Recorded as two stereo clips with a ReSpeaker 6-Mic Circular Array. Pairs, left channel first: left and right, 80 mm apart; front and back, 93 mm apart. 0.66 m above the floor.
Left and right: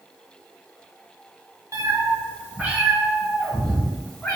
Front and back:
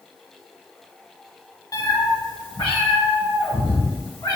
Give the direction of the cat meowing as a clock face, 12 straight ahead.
2 o'clock.